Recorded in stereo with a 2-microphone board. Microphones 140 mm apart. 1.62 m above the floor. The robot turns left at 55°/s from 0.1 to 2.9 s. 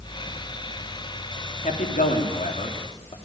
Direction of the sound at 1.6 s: 65° left (ahead or behind).